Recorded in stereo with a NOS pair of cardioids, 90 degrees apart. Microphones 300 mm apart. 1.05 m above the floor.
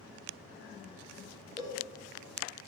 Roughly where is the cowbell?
Ahead.